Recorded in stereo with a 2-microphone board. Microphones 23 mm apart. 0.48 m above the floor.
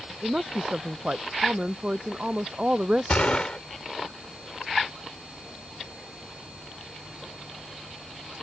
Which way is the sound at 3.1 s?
50° left (ahead or behind).